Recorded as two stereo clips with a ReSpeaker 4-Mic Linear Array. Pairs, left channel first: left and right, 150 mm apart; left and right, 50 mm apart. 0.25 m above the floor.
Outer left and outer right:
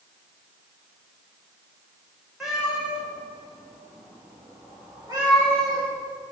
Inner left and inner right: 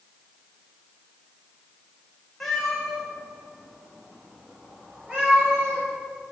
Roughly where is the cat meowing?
Centre.